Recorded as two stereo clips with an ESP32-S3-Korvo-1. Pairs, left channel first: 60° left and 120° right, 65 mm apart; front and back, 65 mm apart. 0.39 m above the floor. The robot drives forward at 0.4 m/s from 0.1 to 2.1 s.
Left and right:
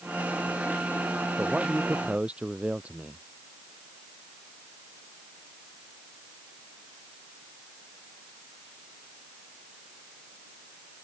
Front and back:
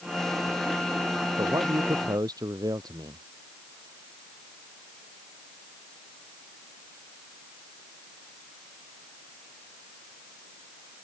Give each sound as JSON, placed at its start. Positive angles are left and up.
{"t": 1.4, "sound": "a man speaking", "azimuth_deg": 170}